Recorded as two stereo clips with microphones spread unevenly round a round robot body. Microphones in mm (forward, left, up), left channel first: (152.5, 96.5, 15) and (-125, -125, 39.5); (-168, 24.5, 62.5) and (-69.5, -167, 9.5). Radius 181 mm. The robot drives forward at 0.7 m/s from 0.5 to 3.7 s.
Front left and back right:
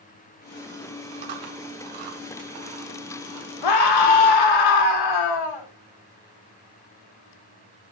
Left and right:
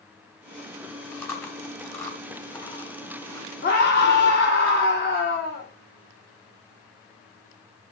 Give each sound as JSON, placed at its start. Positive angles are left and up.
{"t": 1.1, "sound": "chewing", "azimuth_deg": -165, "distance_m": 2.0}
{"t": 3.6, "sound": "a scream", "azimuth_deg": 50, "distance_m": 2.0}